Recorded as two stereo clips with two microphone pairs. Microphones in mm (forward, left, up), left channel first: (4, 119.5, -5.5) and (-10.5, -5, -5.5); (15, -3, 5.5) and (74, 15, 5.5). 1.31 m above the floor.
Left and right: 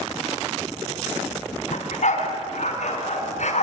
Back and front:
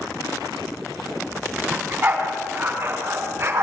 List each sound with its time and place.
1.7 s a dog barking: 80° left, 3.5 m; by 3.6 s 60° left, 5.5 m